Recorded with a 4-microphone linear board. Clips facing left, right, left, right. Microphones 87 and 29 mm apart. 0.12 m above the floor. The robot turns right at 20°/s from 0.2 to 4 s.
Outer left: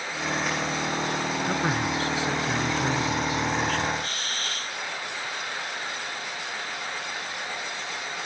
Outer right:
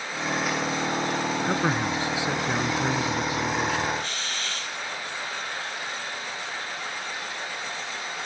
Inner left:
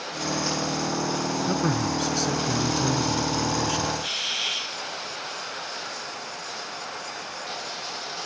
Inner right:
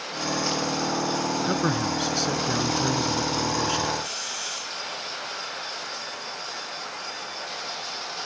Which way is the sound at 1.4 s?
20° right (ahead or behind).